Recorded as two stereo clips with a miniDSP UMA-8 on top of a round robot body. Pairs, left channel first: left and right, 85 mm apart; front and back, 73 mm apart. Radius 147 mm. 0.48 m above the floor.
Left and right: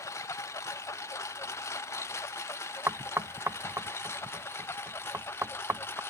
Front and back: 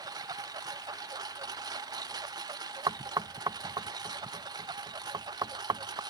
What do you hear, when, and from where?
0.0 s a lawn mower: 145° left; by 6.1 s 155° left
2.9 s knocking: 155° right